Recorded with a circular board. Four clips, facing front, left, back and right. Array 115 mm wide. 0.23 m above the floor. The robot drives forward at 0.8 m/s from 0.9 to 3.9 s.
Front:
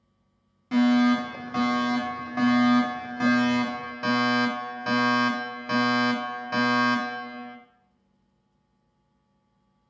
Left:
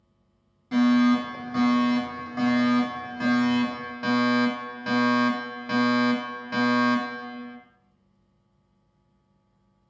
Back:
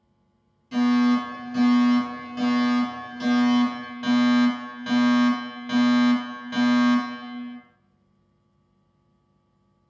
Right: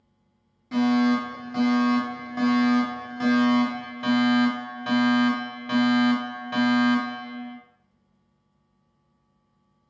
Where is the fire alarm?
10° left, 4 m; by 7.6 s 30° left, 2.5 m.